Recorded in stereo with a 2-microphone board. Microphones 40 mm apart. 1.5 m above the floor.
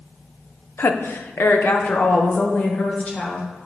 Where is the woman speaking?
65° left (ahead or behind), 0.6 m; by 3.5 s 35° left (ahead or behind), 1.8 m.